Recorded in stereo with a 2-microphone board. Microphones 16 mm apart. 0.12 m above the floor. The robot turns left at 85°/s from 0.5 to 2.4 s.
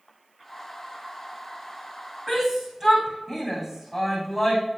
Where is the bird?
I don't hear a bird.